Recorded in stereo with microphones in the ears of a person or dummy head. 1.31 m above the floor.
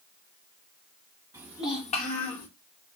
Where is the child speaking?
10° right (ahead or behind), 0.7 m; by 2.5 s 55° left (ahead or behind), 1.7 m.